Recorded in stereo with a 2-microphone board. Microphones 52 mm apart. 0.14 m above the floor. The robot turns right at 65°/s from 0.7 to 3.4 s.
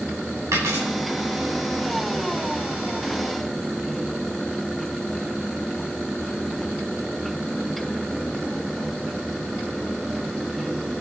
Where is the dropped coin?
70° right (ahead or behind), 8.5 m; by 0.8 s 60° right (ahead or behind), 8.5 m.